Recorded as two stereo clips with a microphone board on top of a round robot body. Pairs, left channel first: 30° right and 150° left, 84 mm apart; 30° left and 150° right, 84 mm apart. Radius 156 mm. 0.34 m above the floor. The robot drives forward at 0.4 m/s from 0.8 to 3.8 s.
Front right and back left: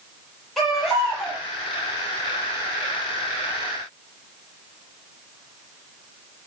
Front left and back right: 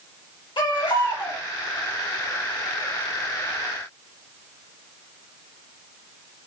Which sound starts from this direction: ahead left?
A baby crying, at 0.6 s.